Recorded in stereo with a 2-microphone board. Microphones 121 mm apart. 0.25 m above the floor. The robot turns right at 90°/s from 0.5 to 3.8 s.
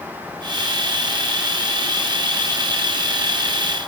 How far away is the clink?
No clink in this recording.